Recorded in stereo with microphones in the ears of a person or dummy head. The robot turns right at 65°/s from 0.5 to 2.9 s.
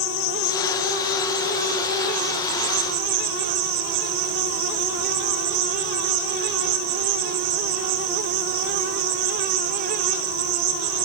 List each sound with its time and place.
0.0 s an insect: 95° left, 5 m; by 11.1 s 110° right, 5 m